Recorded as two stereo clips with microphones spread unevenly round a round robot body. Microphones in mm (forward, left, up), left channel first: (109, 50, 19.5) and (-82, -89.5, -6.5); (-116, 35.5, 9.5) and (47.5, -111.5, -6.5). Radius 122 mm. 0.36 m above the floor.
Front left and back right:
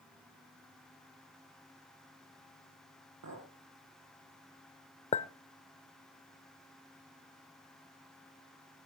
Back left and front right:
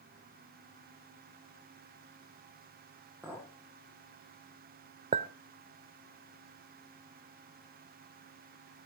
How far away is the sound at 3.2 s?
About 9 m.